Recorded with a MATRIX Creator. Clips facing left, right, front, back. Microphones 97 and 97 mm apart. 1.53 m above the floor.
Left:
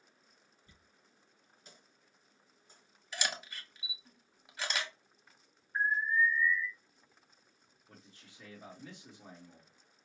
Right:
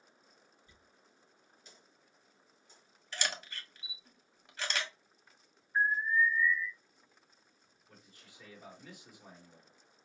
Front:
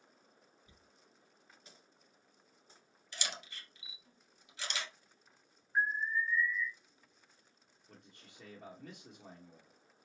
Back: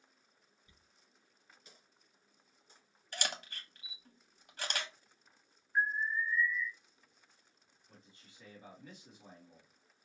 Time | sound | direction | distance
0.7 | a dropped coin | 50° left | 3.5 m
3.1 | a camera shutter | 175° left | 1.0 m
5.8 | an alarm | 40° left | 2 m
7.9 | a man speaking | 25° left | 1.6 m